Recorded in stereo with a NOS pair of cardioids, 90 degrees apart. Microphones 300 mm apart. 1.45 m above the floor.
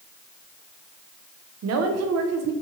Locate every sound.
1.6 s a woman speaking: 60° right, 0.6 m